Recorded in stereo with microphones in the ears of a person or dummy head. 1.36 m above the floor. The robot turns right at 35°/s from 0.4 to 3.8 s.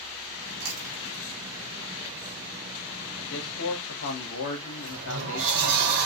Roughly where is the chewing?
Right.